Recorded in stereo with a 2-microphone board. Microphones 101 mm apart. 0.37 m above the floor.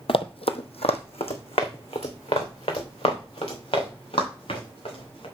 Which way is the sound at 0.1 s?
60° left (ahead or behind).